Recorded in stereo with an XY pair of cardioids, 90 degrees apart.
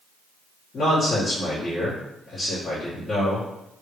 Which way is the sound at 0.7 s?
55° left.